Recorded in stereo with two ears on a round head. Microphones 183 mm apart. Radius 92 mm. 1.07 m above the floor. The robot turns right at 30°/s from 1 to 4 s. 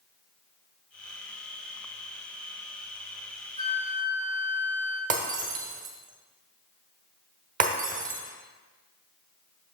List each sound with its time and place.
3.6 s a flute: 25° right (ahead or behind), 1.0 m; by 5.0 s 10° right (ahead or behind), 1.0 m
5.1 s breaking glass: 40° right (ahead or behind), 1.1 m